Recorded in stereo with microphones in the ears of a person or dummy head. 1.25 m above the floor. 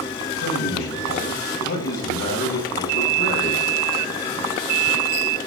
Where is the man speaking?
55° left (ahead or behind), 9.5 m.